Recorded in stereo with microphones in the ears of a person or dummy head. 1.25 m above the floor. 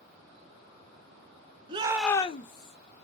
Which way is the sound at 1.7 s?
30° right (ahead or behind).